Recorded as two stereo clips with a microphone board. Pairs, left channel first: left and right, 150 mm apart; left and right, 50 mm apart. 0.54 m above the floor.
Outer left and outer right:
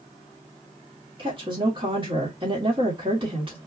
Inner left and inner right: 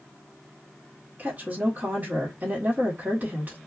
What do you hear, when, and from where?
1.2 s a woman speaking: 35° right (ahead or behind), 1.5 m